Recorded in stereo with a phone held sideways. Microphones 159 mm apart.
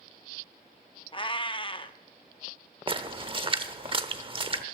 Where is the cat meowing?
30° left (ahead or behind), 0.6 m.